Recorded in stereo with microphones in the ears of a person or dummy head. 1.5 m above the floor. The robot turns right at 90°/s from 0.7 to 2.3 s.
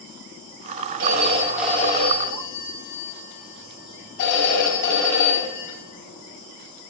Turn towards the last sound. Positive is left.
turn(degrees=55)